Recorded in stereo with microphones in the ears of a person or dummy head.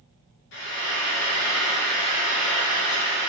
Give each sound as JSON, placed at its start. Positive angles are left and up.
{"t": 0.5, "sound": "frying", "side_deg": 70, "distance_m": 1.1}